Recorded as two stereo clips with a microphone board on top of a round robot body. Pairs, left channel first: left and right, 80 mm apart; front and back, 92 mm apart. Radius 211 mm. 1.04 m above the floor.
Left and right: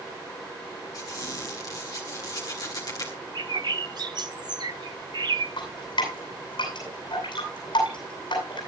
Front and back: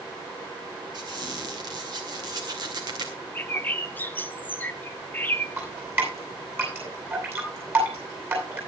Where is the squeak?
135° left, 0.5 m.